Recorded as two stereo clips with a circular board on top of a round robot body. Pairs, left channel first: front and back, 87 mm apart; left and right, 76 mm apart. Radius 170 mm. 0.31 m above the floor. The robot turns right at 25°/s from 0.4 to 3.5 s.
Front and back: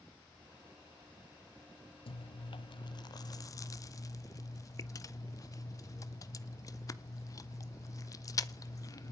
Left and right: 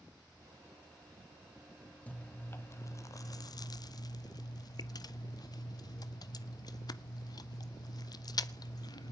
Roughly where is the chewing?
Ahead.